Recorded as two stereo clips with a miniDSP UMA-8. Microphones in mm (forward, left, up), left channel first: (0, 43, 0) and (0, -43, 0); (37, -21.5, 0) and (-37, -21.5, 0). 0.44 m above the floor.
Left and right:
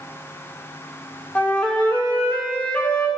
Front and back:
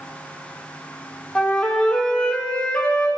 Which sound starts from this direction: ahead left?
A flute, at 1.4 s.